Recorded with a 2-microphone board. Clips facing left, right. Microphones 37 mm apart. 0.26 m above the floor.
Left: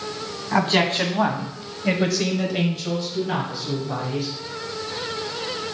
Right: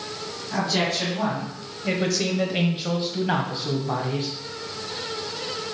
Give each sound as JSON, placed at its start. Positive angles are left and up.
{"t": 0.5, "sound": "a man speaking", "side_deg": 55, "distance_m": 1.8}